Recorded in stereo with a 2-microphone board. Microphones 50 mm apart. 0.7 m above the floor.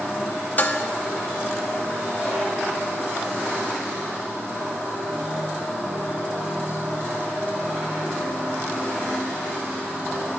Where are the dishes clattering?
40° left (ahead or behind), 0.5 m.